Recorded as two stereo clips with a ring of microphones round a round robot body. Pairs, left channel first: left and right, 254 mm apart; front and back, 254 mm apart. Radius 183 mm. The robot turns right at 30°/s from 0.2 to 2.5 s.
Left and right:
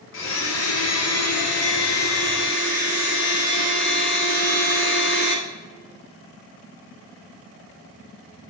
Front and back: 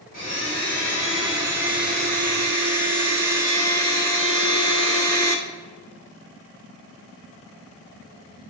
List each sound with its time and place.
0.1 s a blender: 60° left, 1.2 m; by 5.4 s 130° left, 1.2 m